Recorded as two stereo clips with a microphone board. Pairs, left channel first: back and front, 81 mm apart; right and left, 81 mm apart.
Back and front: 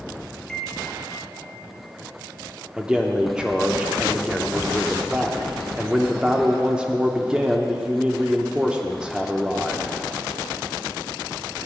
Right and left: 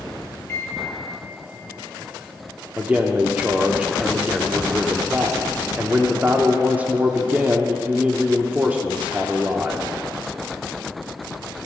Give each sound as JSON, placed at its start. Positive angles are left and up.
{"t": 0.5, "sound": "a microwave", "azimuth_deg": -105, "distance_m": 0.7}
{"t": 2.8, "sound": "a man speaking", "azimuth_deg": 55, "distance_m": 0.7}